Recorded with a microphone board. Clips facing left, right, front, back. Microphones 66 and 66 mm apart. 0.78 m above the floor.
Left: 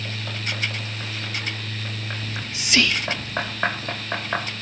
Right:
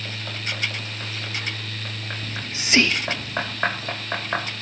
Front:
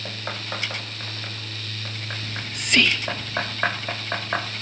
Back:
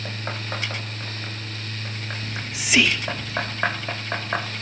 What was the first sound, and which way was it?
Whispering, 105° right.